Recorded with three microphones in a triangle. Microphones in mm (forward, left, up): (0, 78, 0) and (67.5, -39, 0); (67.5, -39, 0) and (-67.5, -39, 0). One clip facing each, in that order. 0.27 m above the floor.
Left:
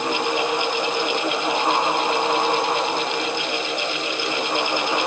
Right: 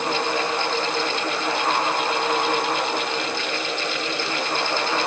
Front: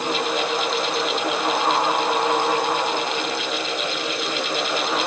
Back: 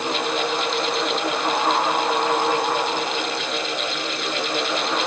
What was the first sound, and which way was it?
Only background noise.